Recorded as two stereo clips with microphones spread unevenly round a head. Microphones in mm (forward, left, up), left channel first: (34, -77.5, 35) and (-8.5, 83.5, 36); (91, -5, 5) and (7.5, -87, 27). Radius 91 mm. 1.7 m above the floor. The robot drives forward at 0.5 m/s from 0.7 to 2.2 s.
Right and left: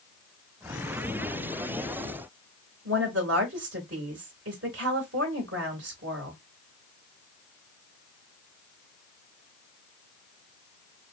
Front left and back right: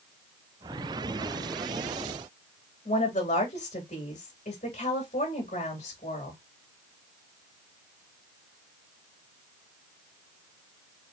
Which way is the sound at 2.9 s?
105° left.